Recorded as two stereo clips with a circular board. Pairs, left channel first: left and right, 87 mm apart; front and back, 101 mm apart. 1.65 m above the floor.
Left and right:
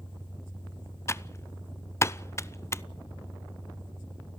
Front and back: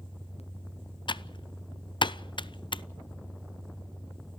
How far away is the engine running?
About 8.5 m.